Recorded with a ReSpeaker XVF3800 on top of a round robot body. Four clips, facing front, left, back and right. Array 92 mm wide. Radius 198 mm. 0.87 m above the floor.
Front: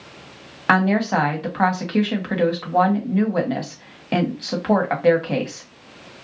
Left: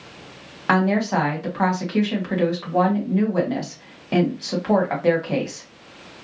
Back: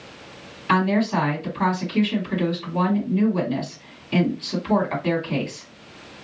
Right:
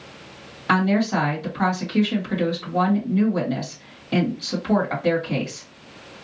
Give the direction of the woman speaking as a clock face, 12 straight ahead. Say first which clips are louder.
Left 1 dB, front 2 dB; 11 o'clock.